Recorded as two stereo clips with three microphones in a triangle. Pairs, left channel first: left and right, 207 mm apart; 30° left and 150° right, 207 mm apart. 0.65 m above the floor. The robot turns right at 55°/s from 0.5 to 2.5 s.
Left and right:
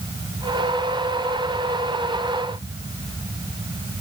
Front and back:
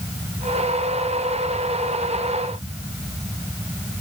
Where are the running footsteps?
No running footsteps in this recording.